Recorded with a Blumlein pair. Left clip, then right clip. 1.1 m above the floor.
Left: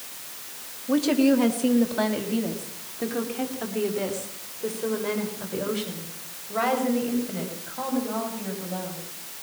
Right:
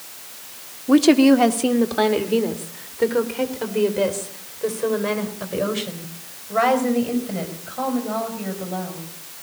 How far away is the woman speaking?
About 1.3 m.